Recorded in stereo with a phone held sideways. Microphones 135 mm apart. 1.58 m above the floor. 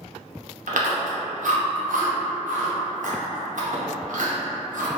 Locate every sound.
0.7 s chewing: 75° right (ahead or behind), 0.7 m